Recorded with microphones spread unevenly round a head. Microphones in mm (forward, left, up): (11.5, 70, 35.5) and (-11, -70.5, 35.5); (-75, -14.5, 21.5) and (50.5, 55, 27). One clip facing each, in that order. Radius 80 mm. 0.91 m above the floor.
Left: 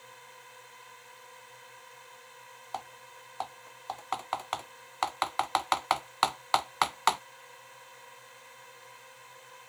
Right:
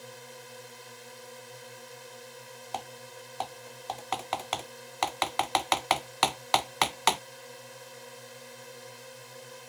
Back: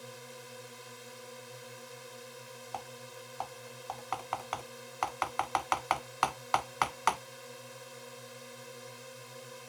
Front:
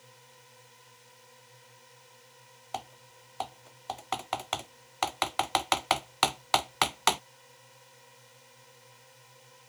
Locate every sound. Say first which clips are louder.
0.0 s a drone: right 7 dB, back 10 dB; 145° right
2.7 s typing on a keyboard: right 2 dB, front 3 dB; 30° right